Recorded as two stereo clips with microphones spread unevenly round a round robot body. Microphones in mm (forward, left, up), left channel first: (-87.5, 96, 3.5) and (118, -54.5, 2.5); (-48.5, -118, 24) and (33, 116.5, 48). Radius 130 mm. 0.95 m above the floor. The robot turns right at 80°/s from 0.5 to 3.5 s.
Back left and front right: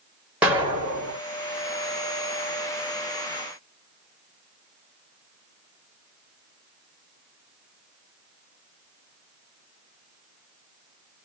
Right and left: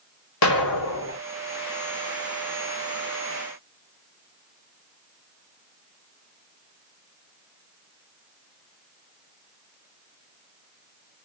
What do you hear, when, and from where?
0.4 s an explosion: 120° right, 1.6 m; by 1.2 s 65° right, 1.6 m